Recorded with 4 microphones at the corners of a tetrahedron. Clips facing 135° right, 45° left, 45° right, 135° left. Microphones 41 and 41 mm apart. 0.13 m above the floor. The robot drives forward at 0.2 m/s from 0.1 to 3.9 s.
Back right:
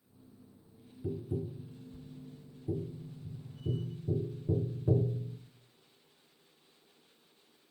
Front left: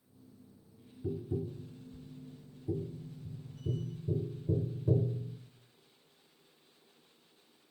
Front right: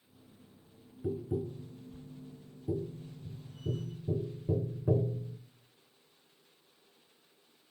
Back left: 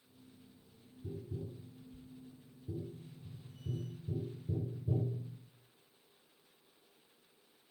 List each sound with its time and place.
1.0 s tapping: 55° right, 2 m; by 5.4 s 70° right, 1.8 m